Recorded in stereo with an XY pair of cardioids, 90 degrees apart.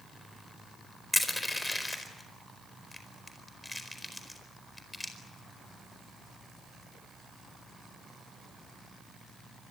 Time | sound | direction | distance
1.1 | crushing | 15° left | 4.5 m